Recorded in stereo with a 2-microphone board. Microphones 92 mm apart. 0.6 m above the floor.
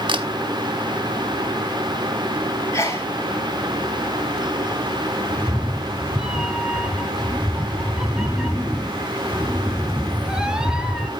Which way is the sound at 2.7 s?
35° left (ahead or behind).